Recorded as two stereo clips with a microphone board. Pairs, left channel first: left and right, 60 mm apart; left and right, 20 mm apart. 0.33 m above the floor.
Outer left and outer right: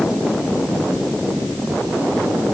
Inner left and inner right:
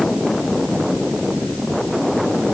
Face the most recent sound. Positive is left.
No sound to turn to.